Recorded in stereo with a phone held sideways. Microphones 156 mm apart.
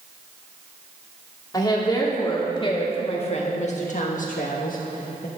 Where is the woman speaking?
25° left (ahead or behind), 2.5 m; by 5.3 s 55° left (ahead or behind), 1.2 m.